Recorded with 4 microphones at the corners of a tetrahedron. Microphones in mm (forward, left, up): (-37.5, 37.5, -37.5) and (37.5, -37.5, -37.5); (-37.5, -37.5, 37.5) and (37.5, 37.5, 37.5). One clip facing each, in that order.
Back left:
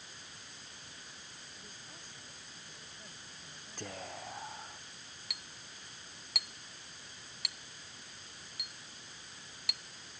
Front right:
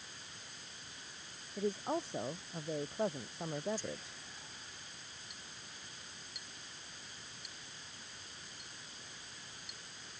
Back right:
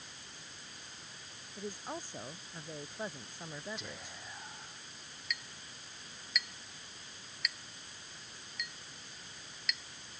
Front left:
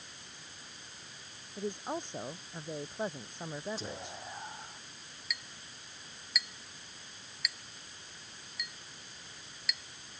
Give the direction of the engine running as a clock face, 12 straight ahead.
I don't hear an engine running.